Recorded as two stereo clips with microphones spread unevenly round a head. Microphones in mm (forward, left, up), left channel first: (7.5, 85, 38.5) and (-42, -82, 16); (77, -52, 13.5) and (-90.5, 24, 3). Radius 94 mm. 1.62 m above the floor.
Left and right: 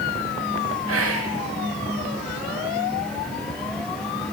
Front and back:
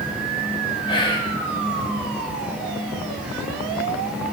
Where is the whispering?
90° right, 1.8 m.